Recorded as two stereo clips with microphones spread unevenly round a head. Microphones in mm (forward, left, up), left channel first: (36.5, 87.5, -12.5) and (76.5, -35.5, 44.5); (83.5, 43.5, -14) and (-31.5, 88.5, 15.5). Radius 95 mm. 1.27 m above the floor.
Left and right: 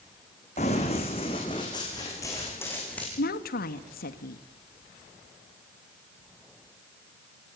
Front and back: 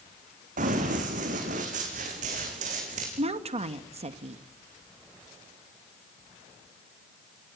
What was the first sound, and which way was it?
Running footsteps, 170° left.